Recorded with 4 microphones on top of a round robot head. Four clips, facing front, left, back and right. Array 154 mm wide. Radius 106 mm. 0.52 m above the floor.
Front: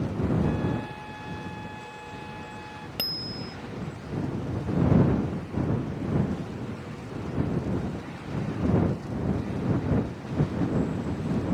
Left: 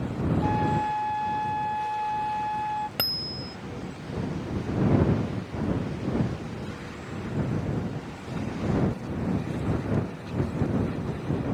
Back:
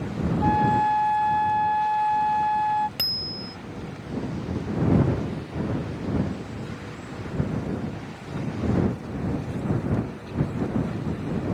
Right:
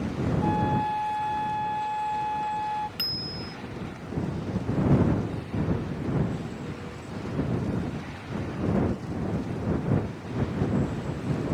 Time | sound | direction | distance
0.4 | a flute | 175° right | ?
3.0 | a bicycle bell | 75° left | ?